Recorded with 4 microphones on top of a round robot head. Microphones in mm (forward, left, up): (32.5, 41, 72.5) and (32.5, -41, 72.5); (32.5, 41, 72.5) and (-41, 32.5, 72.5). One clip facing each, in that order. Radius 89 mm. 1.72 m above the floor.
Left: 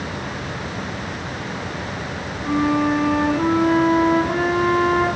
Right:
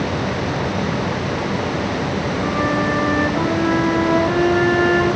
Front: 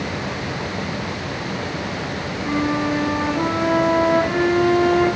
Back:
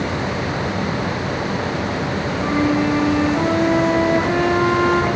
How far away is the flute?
About 9 m.